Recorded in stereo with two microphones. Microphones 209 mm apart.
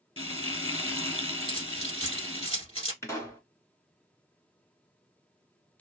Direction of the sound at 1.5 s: 25° right (ahead or behind).